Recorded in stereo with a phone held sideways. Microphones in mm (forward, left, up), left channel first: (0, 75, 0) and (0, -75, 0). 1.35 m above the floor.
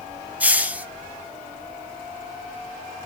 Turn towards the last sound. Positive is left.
turn(degrees=-10)  # may be behind; listen again after turning